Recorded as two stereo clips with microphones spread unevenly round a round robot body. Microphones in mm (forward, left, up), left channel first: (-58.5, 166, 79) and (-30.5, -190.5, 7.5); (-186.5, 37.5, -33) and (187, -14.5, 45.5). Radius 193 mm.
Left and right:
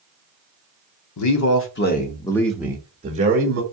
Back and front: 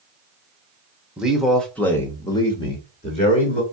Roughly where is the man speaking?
Left.